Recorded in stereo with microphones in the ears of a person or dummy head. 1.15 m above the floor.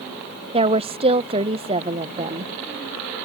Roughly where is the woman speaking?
Right.